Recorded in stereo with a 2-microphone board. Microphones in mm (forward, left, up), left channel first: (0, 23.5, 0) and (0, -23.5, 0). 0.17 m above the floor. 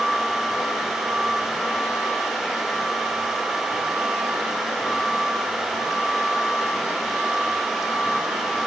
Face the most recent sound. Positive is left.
No sound to turn to.